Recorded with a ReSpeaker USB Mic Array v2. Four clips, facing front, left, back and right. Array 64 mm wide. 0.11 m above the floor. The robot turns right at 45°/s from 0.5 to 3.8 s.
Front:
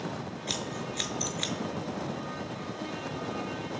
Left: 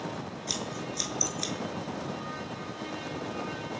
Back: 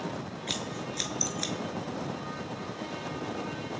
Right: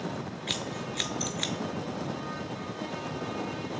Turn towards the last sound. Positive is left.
turn(degrees=50)